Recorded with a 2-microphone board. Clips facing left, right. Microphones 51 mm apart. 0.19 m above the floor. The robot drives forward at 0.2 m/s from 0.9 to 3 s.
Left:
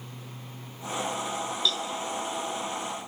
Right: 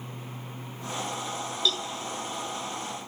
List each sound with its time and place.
1.6 s a cowbell: centre (ahead or behind), 1.5 m